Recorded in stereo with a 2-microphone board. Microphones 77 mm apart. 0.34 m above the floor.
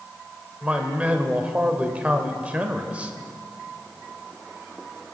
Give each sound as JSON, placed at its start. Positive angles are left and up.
{"t": 0.6, "sound": "a man speaking", "side_deg": -15, "distance_m": 1.0}